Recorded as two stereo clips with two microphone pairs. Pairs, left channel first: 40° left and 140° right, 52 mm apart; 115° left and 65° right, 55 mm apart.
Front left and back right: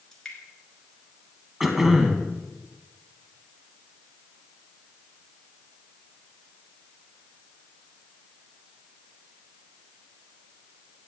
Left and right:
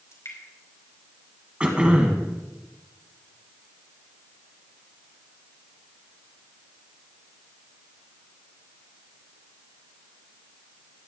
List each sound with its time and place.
0.1 s dripping: 115° left, 3 m
1.6 s throat clearing: 65° right, 1.3 m